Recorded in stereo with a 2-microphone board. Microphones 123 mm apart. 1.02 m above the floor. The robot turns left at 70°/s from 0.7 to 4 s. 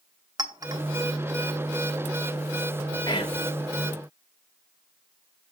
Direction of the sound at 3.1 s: 35° left (ahead or behind).